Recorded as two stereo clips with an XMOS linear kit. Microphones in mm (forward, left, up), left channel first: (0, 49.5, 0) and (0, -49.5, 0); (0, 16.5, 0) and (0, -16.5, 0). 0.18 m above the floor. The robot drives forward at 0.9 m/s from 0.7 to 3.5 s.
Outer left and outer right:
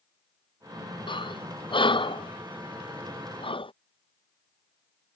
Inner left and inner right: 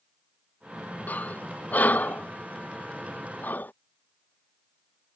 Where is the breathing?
55° left (ahead or behind); by 3.7 s 65° left (ahead or behind).